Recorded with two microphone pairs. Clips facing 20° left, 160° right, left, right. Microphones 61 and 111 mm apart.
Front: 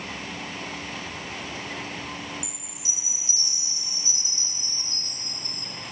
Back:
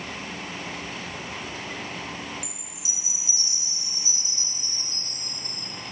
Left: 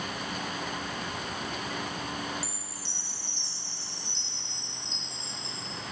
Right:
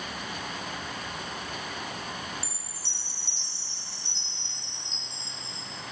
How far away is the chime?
About 1.7 m.